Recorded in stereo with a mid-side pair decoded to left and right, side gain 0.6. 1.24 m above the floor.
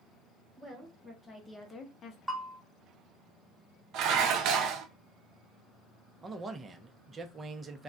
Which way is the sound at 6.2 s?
25° right.